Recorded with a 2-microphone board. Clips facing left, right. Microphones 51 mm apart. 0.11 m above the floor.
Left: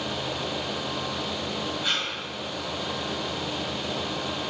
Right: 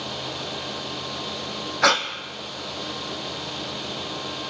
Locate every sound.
1.8 s breathing: 70° right (ahead or behind), 0.9 m